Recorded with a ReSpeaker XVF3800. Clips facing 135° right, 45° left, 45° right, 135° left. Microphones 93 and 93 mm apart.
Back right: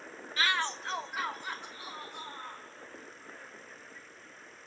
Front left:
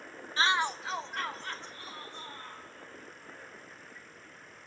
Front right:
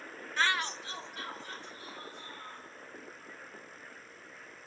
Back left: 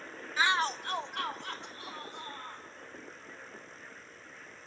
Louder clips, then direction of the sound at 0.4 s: Front left 3 dB, back left 3 dB; 50° left.